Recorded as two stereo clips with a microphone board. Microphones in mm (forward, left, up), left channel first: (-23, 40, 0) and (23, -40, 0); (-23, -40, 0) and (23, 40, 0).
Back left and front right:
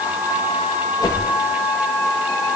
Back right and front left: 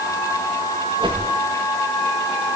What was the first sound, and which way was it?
A whoosh, 80° left.